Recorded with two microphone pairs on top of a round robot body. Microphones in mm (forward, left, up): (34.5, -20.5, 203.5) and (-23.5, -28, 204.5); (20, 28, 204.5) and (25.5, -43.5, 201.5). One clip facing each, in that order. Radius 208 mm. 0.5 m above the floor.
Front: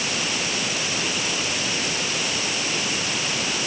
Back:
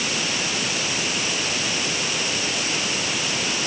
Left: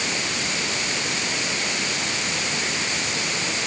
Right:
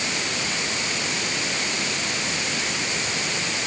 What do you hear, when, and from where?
Only background noise.